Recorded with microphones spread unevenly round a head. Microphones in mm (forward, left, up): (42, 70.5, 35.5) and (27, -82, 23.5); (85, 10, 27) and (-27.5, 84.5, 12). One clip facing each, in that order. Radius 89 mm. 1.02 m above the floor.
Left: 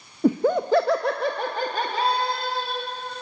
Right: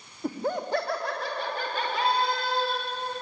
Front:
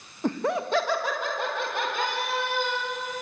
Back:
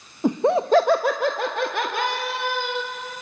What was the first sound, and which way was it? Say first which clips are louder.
Laughter: left 10 dB, back 7 dB; 70° left.